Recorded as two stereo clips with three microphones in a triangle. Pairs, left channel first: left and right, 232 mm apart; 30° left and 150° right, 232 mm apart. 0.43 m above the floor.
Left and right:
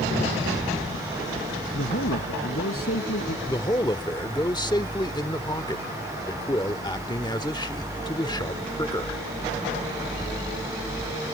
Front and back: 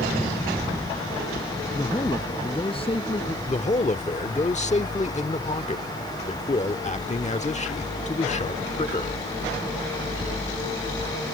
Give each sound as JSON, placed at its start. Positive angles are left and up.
{"t": 1.7, "sound": "a man speaking", "azimuth_deg": 105}
{"t": 3.5, "sound": "a man speaking", "azimuth_deg": 40}